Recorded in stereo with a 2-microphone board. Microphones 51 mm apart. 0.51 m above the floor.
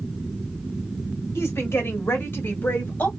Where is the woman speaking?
55° left (ahead or behind), 1.9 m; by 3.1 s 40° left (ahead or behind), 2.5 m.